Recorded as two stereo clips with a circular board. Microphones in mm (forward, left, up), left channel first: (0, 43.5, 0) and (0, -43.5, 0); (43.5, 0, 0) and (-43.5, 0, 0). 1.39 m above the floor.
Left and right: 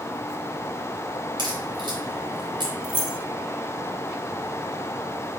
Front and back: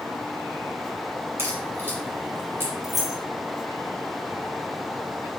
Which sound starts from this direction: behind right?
A crack, at 1.4 s.